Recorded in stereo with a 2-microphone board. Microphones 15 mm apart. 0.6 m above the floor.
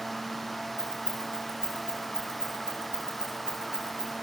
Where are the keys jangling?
55° right (ahead or behind), 3.5 m.